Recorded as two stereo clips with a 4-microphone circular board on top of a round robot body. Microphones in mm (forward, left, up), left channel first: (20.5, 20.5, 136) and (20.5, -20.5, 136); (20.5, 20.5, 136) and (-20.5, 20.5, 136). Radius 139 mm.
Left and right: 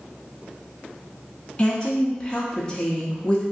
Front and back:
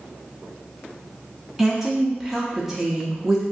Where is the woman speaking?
100° left, 0.8 m.